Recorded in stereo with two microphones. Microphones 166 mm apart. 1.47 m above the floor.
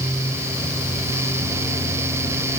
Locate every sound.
Only background noise.